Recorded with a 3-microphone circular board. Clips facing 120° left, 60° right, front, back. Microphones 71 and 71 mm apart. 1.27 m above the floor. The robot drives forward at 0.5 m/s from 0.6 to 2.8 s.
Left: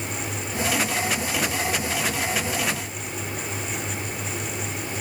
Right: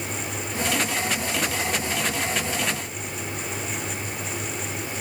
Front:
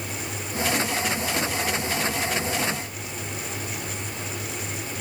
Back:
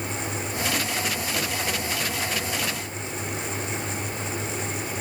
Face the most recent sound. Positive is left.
No sound to turn to.